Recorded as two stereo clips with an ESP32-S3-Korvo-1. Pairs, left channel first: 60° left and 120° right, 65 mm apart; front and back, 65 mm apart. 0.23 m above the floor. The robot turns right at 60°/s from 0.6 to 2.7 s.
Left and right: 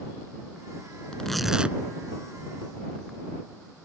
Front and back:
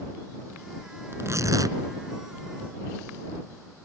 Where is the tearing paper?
135° left; by 1.8 s 175° left.